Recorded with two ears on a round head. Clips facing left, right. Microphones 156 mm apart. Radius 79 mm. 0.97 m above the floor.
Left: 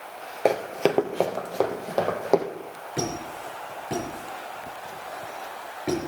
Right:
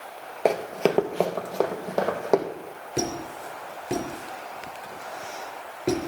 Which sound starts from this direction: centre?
Running footsteps, at 0.5 s.